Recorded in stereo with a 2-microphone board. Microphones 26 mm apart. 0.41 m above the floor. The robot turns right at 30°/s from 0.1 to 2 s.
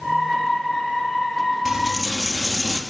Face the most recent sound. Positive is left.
turn(degrees=-15)  # may be behind; listen again after turning